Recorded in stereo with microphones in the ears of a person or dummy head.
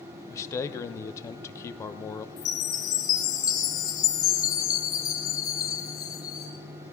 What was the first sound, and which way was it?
A man speaking, 20° left (ahead or behind).